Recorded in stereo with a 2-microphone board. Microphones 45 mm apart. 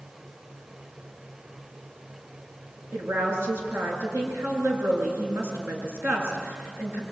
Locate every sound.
2.9 s a woman speaking: 60° right (ahead or behind), 7.5 m